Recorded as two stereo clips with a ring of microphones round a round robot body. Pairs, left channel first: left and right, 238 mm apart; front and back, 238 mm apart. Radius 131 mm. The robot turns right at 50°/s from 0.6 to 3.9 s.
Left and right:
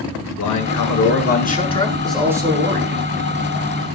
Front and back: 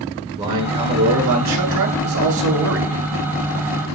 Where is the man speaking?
105° left, 7.5 m; by 3.0 s 135° right, 7.5 m.